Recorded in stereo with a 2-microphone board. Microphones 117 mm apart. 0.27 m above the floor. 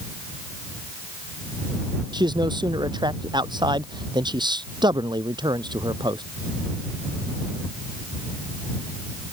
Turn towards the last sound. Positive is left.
turn(degrees=-40)  # may be behind; listen again after turning